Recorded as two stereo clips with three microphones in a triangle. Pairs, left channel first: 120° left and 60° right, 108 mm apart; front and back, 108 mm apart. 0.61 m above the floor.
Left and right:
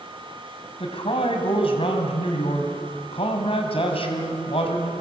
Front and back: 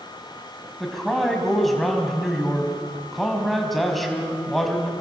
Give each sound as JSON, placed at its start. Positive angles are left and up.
{"t": 0.8, "sound": "a man speaking", "azimuth_deg": 90, "distance_m": 4.0}